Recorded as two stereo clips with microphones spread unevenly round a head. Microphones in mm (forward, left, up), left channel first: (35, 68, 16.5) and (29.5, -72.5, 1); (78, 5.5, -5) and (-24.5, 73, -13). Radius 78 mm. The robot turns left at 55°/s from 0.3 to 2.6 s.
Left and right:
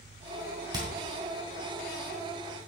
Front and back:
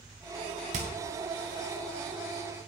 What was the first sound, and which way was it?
Hammering, 160° right.